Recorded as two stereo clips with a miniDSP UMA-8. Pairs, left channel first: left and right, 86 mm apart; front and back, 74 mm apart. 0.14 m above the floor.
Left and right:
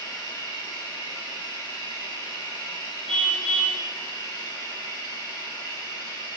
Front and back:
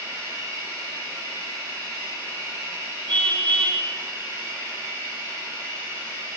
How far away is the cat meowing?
I don't hear a cat meowing.